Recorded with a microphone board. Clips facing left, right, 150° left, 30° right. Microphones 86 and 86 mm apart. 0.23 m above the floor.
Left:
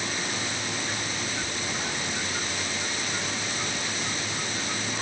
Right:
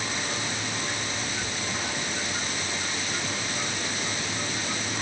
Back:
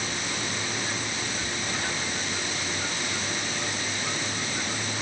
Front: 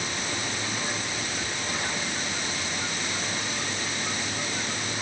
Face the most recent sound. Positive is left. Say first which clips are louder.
# even, even
turn(degrees=120)